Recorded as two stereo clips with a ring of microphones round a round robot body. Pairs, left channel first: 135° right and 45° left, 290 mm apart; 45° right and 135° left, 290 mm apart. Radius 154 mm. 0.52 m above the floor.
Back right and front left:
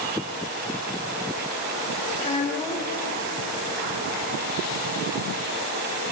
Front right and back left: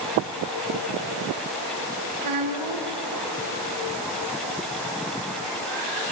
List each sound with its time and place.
2.2 s a child speaking: 150° left, 2 m